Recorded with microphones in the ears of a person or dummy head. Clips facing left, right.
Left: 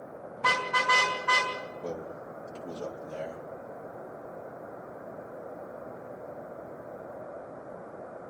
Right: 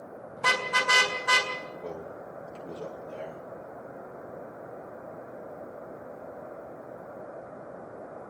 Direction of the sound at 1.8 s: Centre (ahead or behind).